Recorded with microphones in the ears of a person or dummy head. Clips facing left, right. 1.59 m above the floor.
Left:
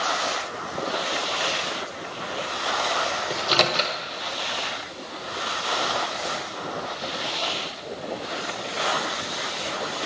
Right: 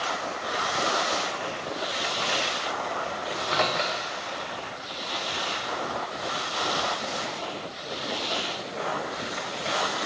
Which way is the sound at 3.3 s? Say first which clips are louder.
Left 3 dB; 45° left (ahead or behind).